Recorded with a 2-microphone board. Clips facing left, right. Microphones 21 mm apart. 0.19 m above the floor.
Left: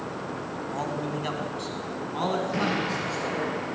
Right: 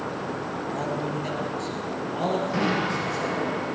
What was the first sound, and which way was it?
A man speaking, 15° left (ahead or behind).